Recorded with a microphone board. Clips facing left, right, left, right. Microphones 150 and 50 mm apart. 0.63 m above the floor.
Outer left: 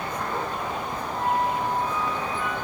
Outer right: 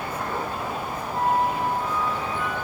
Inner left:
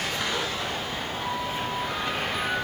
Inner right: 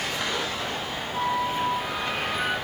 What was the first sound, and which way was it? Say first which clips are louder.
A flute: outer right 2 dB, inner right 7 dB; 65° right (ahead or behind).